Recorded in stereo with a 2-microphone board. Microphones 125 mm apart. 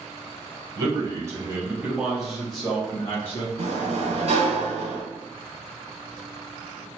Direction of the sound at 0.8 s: 30° right (ahead or behind).